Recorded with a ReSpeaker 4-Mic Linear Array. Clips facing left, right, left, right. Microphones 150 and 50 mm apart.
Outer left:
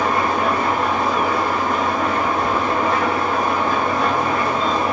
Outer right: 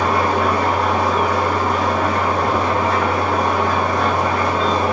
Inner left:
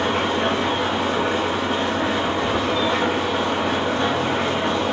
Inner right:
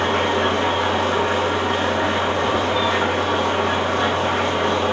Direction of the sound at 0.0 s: 85° right.